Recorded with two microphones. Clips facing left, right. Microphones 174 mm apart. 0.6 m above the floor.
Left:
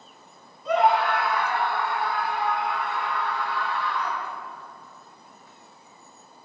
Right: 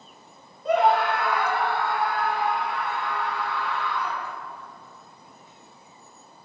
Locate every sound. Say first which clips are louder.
0.7 s a scream: right 1 dB; 55° right (ahead or behind), 2.5 m; by 4.3 s 75° right (ahead or behind), 7 m